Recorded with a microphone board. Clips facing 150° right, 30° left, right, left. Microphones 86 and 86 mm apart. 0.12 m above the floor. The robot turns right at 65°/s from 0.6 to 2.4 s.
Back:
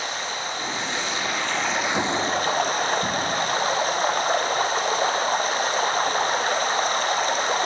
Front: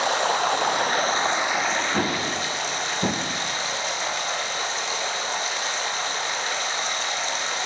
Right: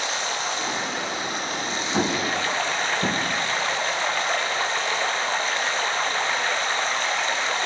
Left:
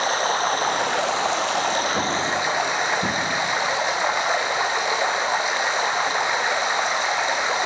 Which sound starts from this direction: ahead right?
An explosion, at 1.9 s.